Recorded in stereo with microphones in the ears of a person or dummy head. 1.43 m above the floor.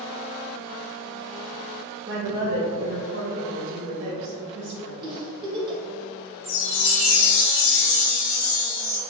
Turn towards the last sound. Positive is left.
turn(degrees=70)  # may be behind; listen again after turning